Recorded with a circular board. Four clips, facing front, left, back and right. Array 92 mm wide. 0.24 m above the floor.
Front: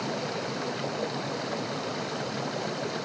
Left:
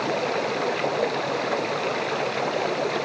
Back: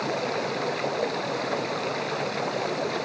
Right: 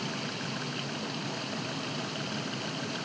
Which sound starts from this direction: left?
Running water, at 0.0 s.